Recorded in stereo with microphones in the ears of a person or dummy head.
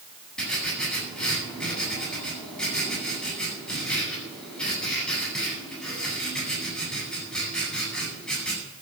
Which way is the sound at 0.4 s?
5° left (ahead or behind).